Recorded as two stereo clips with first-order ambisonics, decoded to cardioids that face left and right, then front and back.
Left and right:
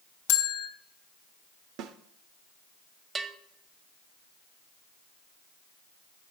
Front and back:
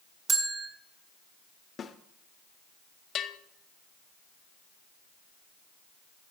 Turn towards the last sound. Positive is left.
turn(degrees=-25)